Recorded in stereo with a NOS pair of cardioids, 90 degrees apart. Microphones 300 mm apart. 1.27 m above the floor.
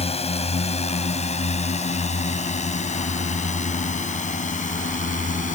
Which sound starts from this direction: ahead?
A drone, at 0.0 s.